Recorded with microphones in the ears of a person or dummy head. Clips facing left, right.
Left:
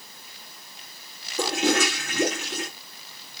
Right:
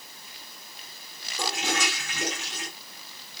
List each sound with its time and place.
1.4 s a toilet flushing: 50° left (ahead or behind), 3 m